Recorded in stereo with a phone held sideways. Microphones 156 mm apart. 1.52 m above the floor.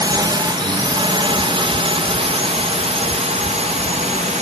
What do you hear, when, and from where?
0.0 s a drone: 25° right (ahead or behind); by 4.4 s 45° right (ahead or behind)